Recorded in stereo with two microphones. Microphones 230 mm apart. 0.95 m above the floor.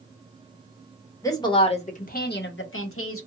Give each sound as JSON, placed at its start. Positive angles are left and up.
{"t": 1.2, "sound": "a woman speaking", "side_deg": 15, "distance_m": 1.0}